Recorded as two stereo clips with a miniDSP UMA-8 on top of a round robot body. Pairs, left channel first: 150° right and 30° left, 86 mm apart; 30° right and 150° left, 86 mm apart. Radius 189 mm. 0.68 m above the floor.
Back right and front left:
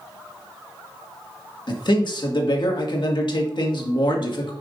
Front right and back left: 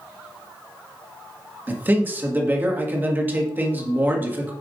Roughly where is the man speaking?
Behind right.